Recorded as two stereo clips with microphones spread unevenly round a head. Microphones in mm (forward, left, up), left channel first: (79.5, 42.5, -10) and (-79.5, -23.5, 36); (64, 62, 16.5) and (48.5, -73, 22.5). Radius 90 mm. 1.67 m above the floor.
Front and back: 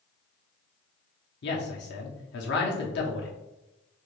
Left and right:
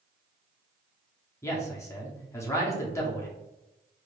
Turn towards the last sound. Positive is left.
turn(degrees=20)